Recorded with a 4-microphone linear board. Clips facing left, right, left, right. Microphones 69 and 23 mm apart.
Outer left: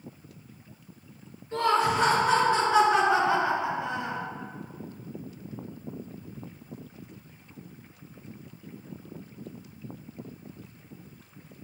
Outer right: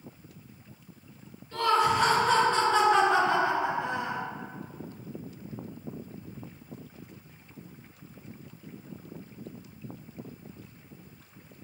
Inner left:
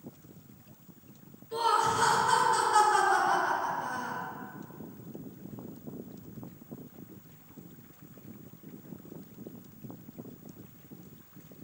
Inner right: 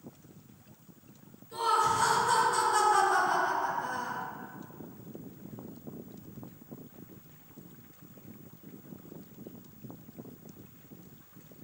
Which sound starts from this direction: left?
Laughter, at 1.5 s.